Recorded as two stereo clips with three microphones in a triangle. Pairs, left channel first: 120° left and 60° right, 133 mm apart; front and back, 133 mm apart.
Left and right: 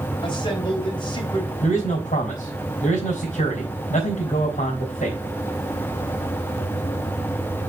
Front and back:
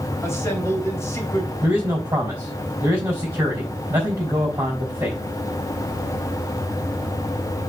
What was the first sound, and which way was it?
A man speaking, 70° left.